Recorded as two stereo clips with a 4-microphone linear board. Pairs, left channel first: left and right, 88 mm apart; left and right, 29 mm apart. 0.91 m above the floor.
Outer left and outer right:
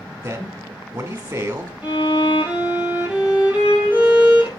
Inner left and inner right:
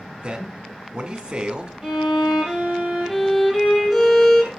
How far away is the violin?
About 3 m.